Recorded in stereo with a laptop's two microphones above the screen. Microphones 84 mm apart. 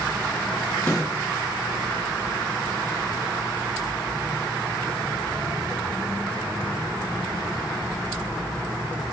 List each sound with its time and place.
0.9 s a snare drum: 10° left (ahead or behind), 0.8 m